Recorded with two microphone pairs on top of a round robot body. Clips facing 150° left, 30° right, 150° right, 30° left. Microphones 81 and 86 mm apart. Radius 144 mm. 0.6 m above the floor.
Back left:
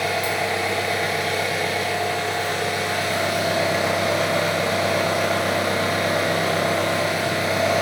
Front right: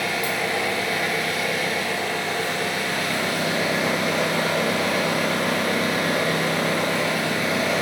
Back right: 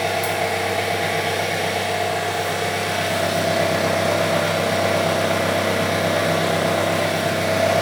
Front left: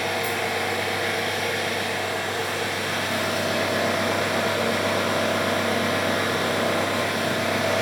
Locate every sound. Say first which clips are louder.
0.0 s an engine running: back left 2 dB, back right 4 dB; 150° right, 1.9 m